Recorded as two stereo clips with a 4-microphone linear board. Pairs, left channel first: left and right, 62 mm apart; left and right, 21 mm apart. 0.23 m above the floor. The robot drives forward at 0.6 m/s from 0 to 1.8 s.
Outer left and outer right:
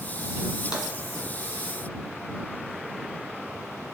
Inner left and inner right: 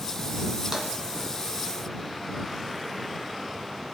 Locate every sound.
0.7 s tapping: 15° right (ahead or behind), 1.5 m